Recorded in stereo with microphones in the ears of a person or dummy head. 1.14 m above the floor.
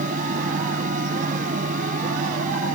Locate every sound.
0.0 s a fan: 50° right (ahead or behind)